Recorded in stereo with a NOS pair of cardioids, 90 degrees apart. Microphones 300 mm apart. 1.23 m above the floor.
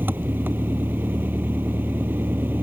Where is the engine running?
5° right.